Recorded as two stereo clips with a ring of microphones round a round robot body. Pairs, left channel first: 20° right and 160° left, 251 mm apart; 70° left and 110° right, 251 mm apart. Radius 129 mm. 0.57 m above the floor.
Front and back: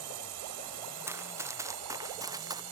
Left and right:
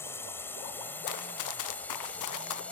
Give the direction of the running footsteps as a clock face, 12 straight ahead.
9 o'clock.